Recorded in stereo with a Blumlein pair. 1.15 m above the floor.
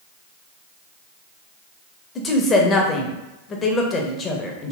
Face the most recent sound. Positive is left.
turn(degrees=20)